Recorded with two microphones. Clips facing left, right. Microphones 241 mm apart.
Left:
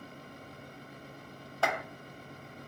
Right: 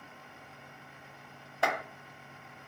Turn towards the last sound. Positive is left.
turn(degrees=-15)  # may be behind; listen again after turning